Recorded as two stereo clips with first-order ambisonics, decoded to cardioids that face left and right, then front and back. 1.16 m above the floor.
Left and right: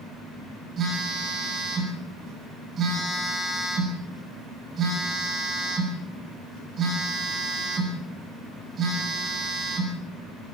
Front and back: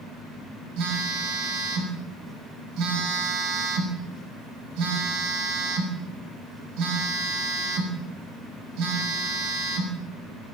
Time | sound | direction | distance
0.8 | a phone buzzing | 155° right | 6.5 m